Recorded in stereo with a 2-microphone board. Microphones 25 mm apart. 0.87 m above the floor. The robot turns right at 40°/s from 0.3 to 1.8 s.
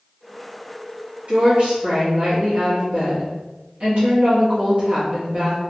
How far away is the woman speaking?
About 1.3 m.